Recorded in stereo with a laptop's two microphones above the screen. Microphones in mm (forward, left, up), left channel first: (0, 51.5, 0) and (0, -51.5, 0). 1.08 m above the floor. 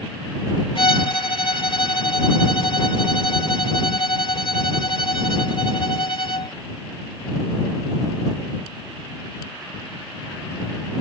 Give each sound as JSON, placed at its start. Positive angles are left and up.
{"t": 0.8, "sound": "a violin", "side_deg": 55}